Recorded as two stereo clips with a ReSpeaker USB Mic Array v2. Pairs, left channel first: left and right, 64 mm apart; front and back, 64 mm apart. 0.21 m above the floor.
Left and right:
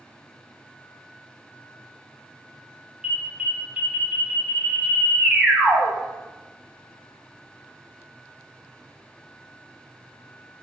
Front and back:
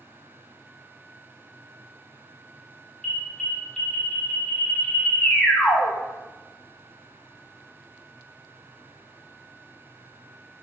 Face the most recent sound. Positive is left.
turn(degrees=-50)